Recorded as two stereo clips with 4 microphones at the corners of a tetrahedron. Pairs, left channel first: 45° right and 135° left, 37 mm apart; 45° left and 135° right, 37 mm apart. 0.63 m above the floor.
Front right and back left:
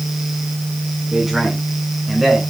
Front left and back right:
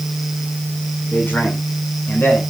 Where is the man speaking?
50° left, 5.5 m; by 2.4 s 55° left, 7.5 m.